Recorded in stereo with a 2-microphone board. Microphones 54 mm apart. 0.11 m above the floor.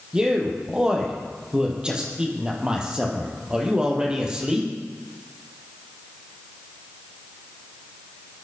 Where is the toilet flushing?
No toilet flushing in this recording.